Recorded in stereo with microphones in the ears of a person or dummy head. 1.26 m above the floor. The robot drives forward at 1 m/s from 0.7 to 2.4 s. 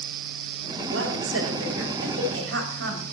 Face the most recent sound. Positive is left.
turn(degrees=-65)  # may be behind; listen again after turning